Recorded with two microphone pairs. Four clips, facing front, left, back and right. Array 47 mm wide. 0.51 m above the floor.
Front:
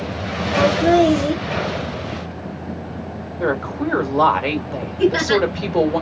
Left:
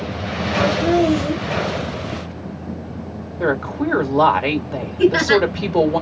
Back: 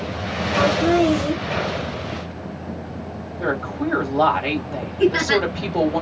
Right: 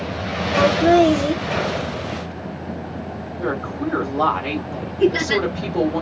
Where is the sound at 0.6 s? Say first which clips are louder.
Right 3 dB, front 3 dB; 55° right, 1.0 m.